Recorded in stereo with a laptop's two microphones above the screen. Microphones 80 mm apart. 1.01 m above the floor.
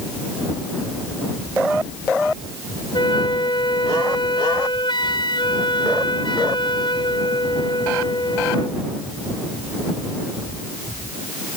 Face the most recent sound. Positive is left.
turn(degrees=80)